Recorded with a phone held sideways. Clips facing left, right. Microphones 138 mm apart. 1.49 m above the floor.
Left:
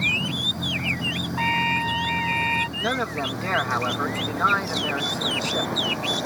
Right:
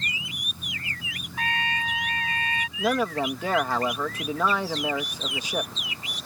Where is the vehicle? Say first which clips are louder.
Left 11 dB; 80° left.